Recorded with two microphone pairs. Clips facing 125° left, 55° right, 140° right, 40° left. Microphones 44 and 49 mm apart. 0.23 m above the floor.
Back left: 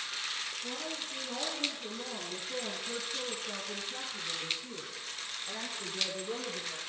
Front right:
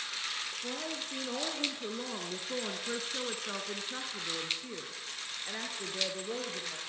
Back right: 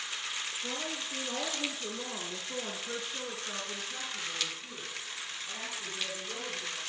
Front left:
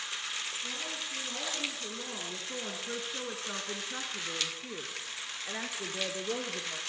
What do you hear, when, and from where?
0.6 s a woman speaking: 85° right, 4 m; by 6.8 s 20° left, 5.5 m